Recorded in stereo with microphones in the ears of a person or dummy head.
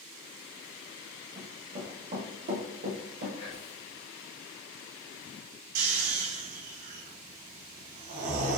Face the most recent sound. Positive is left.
turn(degrees=-50)  # may be behind; listen again after turning